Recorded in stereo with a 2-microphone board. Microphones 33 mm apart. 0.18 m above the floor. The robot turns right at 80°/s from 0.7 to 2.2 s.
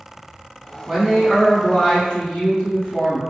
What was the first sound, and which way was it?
A man speaking, 45° right.